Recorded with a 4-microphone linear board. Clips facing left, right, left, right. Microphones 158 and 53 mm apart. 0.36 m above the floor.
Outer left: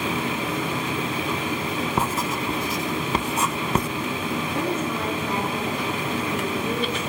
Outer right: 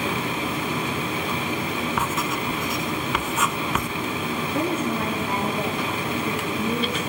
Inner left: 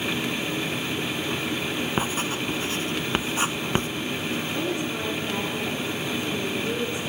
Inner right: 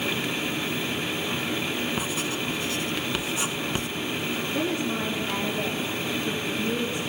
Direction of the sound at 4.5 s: 30° right (ahead or behind).